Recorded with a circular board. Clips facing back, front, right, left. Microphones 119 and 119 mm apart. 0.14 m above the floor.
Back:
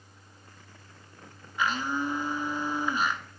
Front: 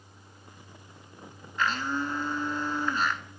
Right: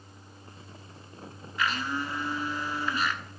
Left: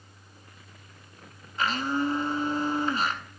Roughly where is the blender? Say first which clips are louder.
Even, left 4 dB; left.